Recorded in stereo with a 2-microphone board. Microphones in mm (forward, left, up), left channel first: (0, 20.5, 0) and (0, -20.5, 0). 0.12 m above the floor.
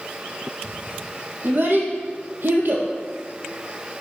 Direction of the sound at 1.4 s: 55° right (ahead or behind).